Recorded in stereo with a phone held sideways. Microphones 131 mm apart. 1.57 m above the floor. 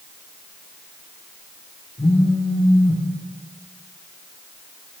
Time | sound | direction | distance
2.0 | a phone buzzing | 40° left (ahead or behind) | 0.9 m